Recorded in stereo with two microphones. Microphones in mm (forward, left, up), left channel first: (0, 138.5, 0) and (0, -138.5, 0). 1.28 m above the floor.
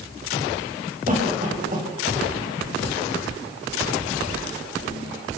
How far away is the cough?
About 9 m.